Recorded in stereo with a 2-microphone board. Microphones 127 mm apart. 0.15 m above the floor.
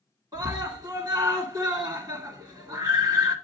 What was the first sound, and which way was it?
A scream, 30° right (ahead or behind).